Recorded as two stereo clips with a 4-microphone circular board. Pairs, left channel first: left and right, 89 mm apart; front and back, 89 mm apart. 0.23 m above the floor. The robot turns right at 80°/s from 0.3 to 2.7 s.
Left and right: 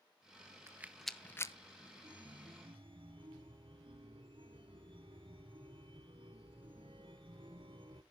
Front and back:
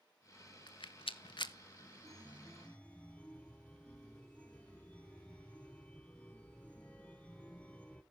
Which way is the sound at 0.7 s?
30° right.